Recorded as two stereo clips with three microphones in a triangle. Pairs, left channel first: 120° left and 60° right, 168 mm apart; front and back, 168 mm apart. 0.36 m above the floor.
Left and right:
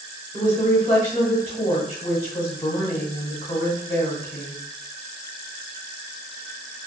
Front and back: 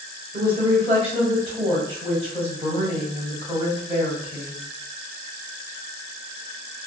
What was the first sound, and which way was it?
A woman speaking, 145° left.